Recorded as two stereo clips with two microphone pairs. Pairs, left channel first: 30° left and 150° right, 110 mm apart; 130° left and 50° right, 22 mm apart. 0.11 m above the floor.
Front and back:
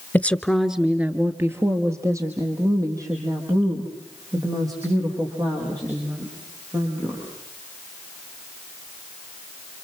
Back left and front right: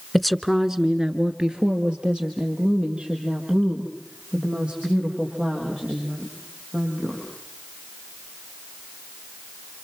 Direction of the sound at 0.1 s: 55° left.